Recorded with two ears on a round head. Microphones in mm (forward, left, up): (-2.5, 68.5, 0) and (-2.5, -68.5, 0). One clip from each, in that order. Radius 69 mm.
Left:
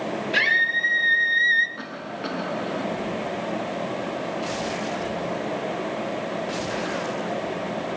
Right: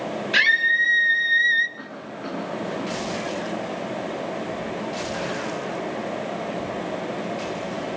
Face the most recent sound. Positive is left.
turn(degrees=60)  # may be behind; listen again after turning